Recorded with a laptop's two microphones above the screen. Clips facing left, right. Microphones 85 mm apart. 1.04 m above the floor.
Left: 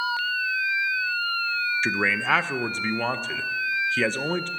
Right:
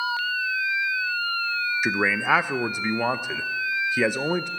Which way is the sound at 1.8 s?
10° right (ahead or behind).